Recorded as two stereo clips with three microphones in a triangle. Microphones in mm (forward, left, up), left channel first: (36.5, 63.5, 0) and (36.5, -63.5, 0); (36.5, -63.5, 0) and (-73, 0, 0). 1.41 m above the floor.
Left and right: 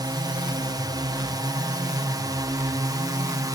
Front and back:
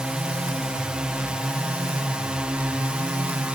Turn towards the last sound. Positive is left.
turn(degrees=-130)